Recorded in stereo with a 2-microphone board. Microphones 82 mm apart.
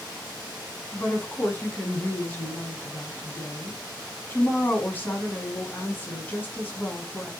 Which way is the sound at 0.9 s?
25° left (ahead or behind).